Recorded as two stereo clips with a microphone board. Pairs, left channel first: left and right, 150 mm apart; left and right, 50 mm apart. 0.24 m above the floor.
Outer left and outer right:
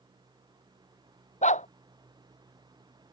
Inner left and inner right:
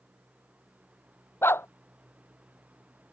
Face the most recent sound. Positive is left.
turn(degrees=55)  # may be behind; listen again after turning